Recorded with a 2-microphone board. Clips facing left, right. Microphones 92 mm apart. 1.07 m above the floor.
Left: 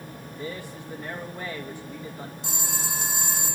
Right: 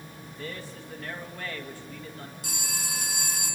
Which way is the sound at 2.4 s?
25° left (ahead or behind).